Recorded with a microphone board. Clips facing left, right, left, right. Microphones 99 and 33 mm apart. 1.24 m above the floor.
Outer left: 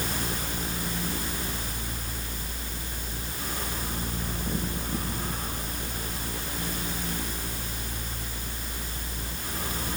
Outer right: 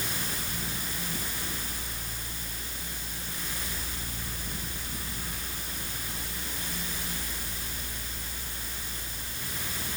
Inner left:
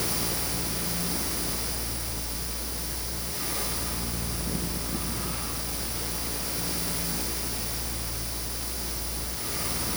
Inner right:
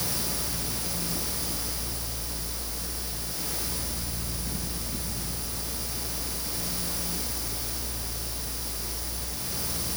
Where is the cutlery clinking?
I don't hear cutlery clinking.